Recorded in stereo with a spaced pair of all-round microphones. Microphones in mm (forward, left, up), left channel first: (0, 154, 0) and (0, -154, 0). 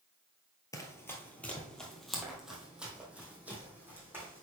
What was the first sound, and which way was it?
Running footsteps, 10° left (ahead or behind).